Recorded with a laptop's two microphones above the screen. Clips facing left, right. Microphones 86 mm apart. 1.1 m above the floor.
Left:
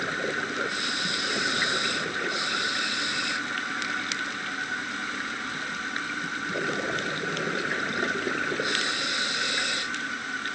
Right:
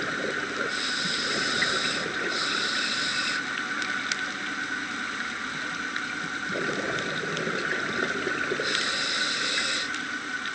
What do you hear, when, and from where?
Only background noise.